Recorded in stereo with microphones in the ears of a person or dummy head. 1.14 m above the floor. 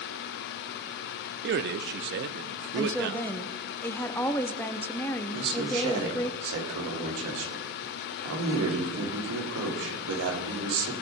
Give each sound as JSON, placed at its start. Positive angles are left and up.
{"t": 1.4, "sound": "a man speaking", "side_deg": -55, "distance_m": 0.7}
{"t": 2.8, "sound": "a woman speaking", "side_deg": 10, "distance_m": 0.6}
{"t": 5.3, "sound": "a man speaking", "side_deg": -75, "distance_m": 3.0}